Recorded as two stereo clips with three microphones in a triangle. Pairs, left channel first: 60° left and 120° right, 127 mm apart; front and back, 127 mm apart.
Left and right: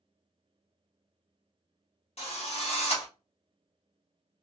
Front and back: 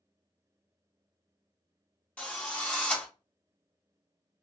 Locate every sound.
2.2 s a drill: 80° left, 1.6 m